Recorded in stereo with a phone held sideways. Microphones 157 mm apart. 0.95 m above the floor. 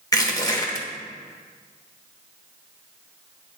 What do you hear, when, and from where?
0.1 s crushing: 25° left (ahead or behind), 1.2 m